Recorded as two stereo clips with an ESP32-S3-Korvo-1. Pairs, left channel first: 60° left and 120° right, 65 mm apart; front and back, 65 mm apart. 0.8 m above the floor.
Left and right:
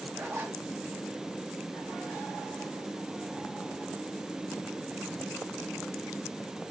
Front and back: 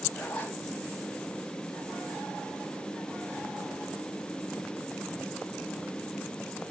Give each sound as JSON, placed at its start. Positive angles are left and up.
{"t": 0.1, "sound": "a zipper", "azimuth_deg": -65, "distance_m": 5.0}